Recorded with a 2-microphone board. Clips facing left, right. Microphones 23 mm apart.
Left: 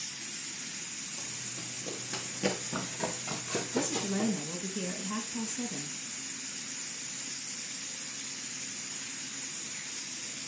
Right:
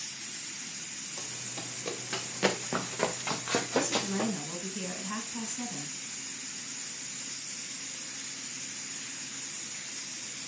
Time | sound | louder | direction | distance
1.2 | running footsteps | right 1 dB | 65° right (ahead or behind) | 2.5 m
3.7 | a woman speaking | even | 15° right (ahead or behind) | 1.9 m